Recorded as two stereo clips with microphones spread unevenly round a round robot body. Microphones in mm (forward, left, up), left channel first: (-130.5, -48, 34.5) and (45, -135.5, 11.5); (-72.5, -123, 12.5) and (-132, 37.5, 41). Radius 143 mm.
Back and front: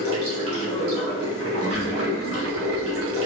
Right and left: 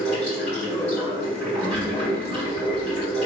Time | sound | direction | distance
0.0 | running water | straight ahead | 1.6 m
1.6 | a child speaking | 155° left | 0.9 m